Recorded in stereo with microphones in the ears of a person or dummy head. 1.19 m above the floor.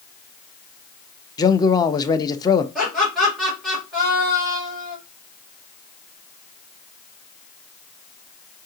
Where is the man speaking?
20° left (ahead or behind), 0.6 m.